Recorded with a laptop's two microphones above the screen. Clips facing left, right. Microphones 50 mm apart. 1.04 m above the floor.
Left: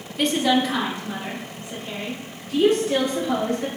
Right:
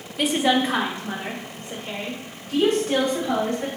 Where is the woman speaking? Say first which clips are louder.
Even; 5° right (ahead or behind), 0.8 m; by 3.7 s 70° right (ahead or behind), 3.5 m.